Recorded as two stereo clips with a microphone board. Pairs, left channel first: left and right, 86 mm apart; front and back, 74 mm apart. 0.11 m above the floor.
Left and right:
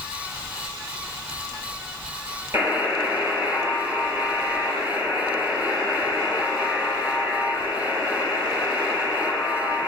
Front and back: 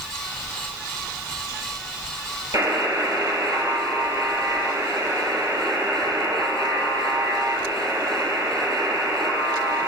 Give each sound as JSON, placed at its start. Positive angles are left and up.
{"t": 2.5, "sound": "a buzzer", "azimuth_deg": -145, "distance_m": 2.5}